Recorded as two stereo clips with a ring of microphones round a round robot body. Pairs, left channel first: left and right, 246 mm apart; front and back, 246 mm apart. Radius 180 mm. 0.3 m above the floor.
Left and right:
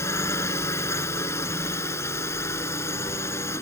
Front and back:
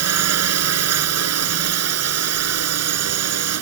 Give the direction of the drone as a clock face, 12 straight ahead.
6 o'clock.